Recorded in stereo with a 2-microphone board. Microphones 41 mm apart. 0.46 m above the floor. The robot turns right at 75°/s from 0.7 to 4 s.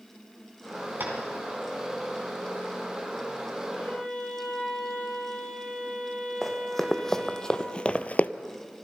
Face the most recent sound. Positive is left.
turn(degrees=40)  # may be behind; listen again after turning